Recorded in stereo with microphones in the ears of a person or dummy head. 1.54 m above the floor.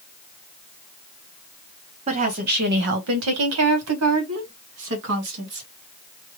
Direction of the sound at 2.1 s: 40° right (ahead or behind).